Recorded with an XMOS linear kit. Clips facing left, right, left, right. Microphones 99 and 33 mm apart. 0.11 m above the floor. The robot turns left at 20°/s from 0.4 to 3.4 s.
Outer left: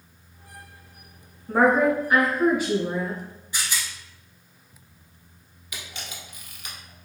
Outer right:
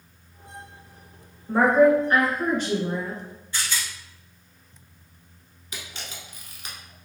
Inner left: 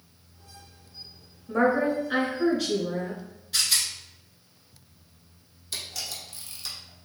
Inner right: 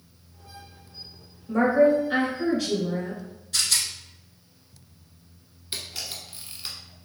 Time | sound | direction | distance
1.5 | a woman speaking | 15° left (ahead or behind) | 1.5 m
3.5 | a rattle | 15° left (ahead or behind) | 0.7 m
5.7 | a camera shutter | 30° right (ahead or behind) | 1.1 m